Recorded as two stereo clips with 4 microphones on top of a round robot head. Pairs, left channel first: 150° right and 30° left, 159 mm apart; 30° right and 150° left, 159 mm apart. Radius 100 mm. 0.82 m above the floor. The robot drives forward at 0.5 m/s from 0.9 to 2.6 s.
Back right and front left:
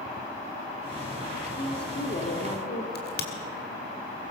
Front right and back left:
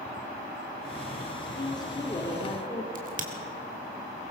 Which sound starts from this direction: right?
A woman speaking, at 1.6 s.